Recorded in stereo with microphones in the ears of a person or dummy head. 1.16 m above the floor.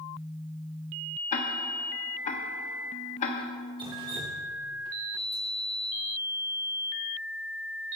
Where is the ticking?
40° left (ahead or behind), 1.3 m.